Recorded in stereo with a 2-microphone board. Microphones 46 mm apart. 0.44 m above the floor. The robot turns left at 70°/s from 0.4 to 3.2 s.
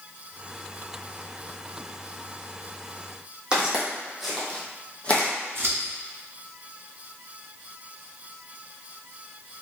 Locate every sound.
3.5 s footsteps: 20° right (ahead or behind), 1.1 m; by 5.3 s 35° left (ahead or behind), 1.0 m
5.5 s scissors: 60° right (ahead or behind), 1.0 m